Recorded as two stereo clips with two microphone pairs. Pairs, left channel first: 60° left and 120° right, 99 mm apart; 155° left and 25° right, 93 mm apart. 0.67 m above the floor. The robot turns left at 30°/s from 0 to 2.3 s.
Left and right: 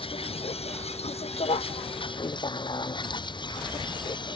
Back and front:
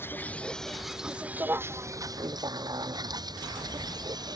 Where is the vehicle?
90° left; by 4.3 s 20° left.